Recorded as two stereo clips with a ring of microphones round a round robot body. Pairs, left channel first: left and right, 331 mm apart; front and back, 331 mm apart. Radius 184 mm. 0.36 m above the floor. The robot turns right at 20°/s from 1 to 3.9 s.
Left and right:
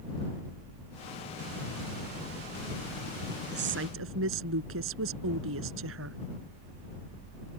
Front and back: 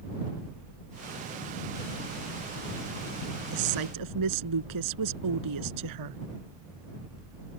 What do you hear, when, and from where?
3.5 s a woman speaking: 155° right; by 6.2 s 145° right